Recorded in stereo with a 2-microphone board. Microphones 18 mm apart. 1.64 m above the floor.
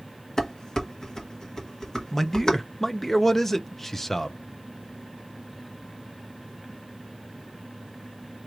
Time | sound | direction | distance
0.4 | dishes clattering | 30° left (ahead or behind) | 1.1 m
2.1 | a man speaking | 15° left (ahead or behind) | 0.6 m